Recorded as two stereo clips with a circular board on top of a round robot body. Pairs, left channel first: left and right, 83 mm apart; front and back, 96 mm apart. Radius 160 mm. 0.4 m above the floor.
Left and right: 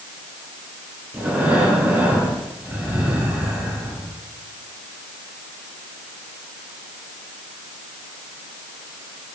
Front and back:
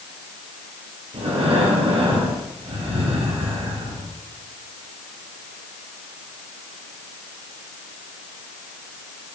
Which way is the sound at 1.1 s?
160° right.